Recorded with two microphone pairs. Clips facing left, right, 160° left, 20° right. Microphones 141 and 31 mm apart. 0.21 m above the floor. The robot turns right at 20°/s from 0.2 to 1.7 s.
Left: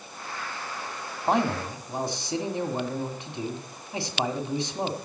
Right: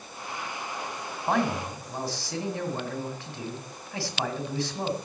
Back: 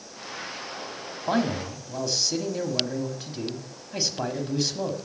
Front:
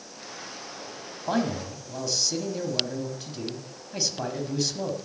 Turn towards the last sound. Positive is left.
turn(degrees=105)